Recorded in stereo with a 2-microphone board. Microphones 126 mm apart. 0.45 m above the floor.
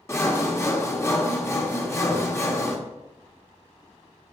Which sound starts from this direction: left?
Sawing, at 0.1 s.